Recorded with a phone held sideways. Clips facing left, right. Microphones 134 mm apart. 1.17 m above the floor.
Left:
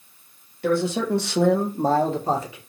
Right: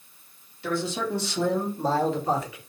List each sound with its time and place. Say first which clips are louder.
0.6 s a man speaking: left 6 dB; 55° left (ahead or behind), 0.9 m; by 2.6 s 30° left (ahead or behind), 1.1 m